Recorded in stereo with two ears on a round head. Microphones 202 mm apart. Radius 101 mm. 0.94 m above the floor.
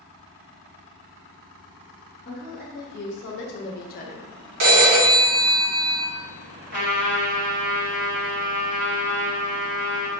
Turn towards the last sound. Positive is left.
turn(degrees=-35)  # may be behind; listen again after turning